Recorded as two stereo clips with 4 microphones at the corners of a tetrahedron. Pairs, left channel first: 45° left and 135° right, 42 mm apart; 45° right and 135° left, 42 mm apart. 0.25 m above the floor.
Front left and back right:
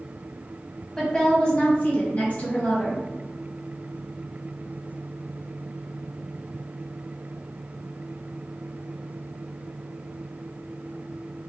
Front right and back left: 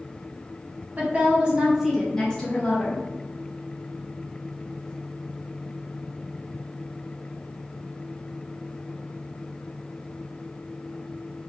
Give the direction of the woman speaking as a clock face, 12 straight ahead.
8 o'clock.